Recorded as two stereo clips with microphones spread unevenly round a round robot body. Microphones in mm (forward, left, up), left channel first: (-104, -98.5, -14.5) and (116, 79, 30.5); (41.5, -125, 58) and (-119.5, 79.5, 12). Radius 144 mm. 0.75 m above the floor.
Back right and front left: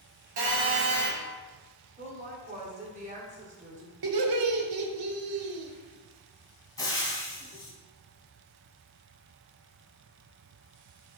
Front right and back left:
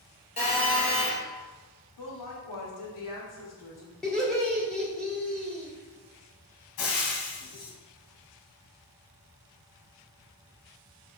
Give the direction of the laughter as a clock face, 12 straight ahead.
11 o'clock.